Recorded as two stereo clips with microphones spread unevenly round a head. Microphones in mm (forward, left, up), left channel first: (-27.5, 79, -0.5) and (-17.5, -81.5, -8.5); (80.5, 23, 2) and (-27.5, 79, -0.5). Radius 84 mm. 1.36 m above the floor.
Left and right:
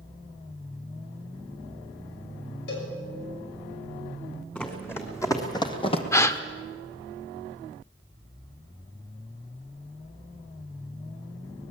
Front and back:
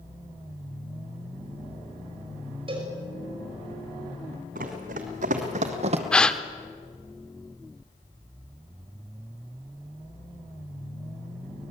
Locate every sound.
2.7 s a cowbell: 105° left, 6 m
4.5 s running footsteps: 170° left, 4 m; by 6.0 s 135° left, 2.5 m
6.1 s a gasp: 45° left, 1.0 m